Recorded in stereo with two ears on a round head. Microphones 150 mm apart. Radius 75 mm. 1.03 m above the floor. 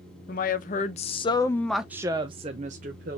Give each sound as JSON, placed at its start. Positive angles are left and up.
{"t": 0.3, "sound": "a woman speaking", "side_deg": 55, "distance_m": 1.0}